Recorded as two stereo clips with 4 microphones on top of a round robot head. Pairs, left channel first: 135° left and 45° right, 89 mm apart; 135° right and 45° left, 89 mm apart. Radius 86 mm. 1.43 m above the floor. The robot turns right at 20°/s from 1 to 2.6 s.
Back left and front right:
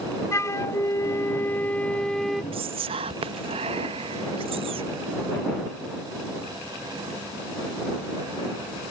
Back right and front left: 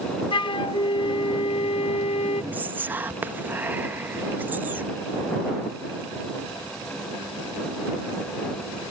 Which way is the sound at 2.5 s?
25° right.